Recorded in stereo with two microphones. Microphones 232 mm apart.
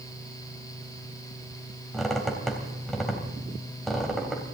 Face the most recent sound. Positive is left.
turn(degrees=0)  # may be behind; listen again after turning